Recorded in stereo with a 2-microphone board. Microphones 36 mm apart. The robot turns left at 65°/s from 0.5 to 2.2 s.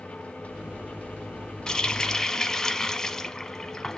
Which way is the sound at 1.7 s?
20° left (ahead or behind).